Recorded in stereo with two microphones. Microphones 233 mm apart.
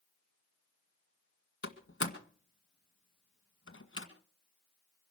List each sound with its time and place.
1.6 s a door slam: 65° left (ahead or behind), 1.7 m